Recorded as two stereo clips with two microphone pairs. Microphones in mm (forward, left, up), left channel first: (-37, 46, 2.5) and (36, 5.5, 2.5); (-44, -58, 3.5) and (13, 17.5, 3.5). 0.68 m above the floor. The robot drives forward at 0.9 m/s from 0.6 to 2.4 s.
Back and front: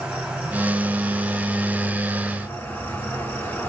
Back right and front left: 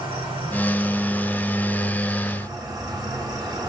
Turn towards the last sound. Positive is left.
turn(degrees=90)